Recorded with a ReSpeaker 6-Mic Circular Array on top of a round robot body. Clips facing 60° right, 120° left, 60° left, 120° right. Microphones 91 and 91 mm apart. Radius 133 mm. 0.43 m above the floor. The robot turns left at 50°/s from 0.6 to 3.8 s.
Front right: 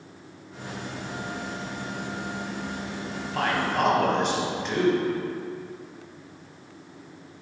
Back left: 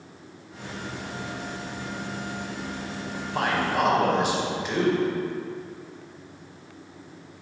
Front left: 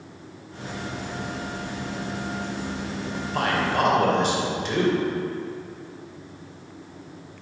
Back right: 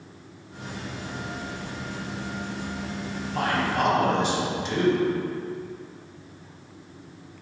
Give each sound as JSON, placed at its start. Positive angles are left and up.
{"t": 3.1, "sound": "a man speaking", "azimuth_deg": 70, "distance_m": 3.0}